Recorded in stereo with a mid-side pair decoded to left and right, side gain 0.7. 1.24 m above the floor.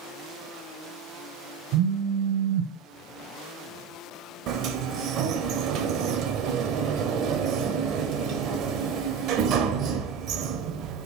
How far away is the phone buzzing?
About 0.7 m.